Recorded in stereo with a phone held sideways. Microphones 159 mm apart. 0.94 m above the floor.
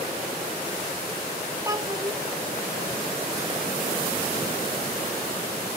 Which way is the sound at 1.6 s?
20° right (ahead or behind).